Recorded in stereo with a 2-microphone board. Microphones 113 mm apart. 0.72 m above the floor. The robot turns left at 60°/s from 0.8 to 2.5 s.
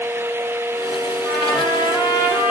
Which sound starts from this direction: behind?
A trumpet, at 1.2 s.